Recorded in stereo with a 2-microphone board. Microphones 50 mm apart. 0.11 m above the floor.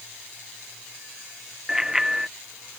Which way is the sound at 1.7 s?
10° right (ahead or behind).